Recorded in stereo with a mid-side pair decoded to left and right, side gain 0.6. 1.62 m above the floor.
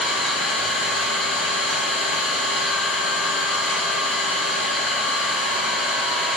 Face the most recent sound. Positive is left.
turn(degrees=60)